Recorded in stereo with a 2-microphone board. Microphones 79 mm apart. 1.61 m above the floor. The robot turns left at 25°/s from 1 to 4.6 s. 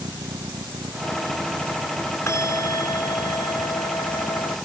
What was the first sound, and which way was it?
A vehicle, 75° right (ahead or behind).